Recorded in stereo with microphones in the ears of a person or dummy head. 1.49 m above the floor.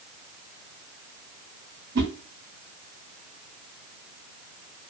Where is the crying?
I don't hear crying.